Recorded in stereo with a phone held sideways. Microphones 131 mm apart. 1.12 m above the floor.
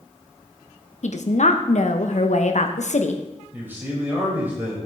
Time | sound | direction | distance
1.0 | a woman speaking | 65° left (ahead or behind) | 1.1 m
3.5 | a man speaking | 15° right (ahead or behind) | 6 m